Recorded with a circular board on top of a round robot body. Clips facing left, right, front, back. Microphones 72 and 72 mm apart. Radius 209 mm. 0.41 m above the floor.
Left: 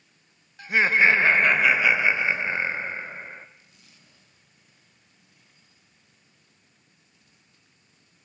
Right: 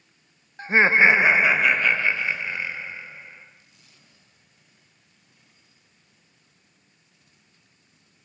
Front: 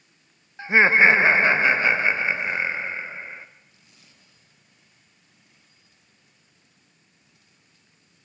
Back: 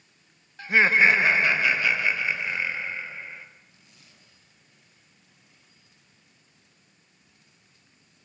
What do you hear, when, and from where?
0.6 s laughter: 55° right, 1.2 m; by 3.5 s 60° left, 1.5 m